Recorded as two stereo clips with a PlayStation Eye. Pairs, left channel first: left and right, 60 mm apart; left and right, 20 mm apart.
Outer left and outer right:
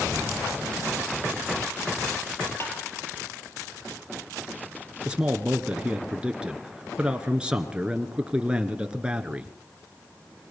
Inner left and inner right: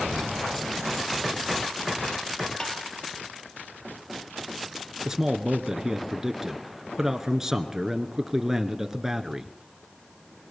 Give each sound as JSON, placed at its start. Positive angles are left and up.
{"t": 2.6, "sound": "tapping", "side_deg": 40, "distance_m": 3.5}
{"t": 5.0, "sound": "a man speaking", "side_deg": -15, "distance_m": 1.3}